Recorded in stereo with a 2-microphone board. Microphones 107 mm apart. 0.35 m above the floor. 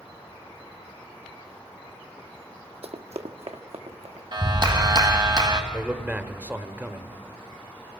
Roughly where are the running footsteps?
Right.